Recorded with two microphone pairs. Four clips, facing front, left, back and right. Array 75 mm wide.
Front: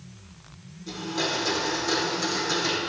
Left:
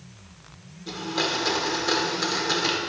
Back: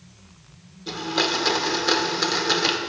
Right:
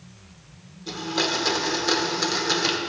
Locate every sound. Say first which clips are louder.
0.9 s a blender: right 1 dB, back 4 dB; 170° right, 1.0 m